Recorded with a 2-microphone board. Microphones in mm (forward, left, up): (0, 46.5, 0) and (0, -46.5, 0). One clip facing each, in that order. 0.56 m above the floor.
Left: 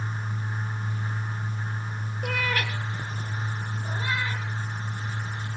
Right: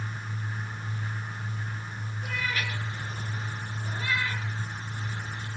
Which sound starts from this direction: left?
A cat meowing, at 2.2 s.